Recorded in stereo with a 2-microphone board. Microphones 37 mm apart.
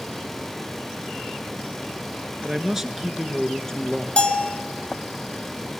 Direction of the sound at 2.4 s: 15° right (ahead or behind).